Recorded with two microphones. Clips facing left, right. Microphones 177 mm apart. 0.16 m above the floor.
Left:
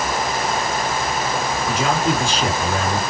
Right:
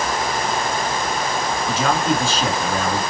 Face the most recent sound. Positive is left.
turn(degrees=15)  # may be behind; listen again after turning